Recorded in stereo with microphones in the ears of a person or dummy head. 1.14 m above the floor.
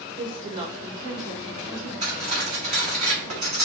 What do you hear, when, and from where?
0.2 s a woman speaking: 30° right (ahead or behind), 1.0 m
2.0 s cutlery clinking: 35° right (ahead or behind), 0.9 m